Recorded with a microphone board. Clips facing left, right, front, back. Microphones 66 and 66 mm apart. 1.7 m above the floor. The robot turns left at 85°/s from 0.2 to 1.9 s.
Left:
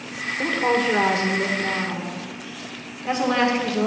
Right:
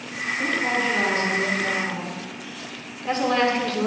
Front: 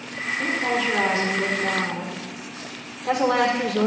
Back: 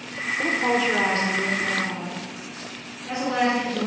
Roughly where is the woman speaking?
Behind left.